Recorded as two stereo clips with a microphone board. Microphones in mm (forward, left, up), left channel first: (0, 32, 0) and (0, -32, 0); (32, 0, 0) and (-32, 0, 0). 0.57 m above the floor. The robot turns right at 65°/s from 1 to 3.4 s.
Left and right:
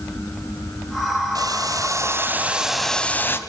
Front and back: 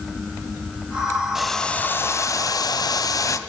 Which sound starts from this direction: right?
Boiling, at 1.4 s.